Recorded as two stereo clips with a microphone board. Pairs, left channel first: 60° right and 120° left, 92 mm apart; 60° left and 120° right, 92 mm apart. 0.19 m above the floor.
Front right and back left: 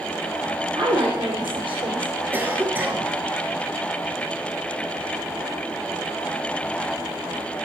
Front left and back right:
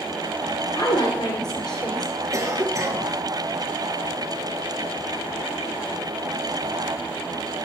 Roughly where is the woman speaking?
Left.